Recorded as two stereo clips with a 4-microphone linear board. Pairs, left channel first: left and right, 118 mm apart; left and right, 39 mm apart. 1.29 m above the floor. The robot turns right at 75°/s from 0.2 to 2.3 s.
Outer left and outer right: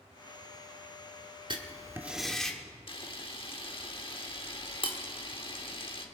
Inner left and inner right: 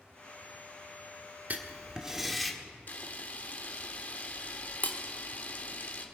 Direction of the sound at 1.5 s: 55° right.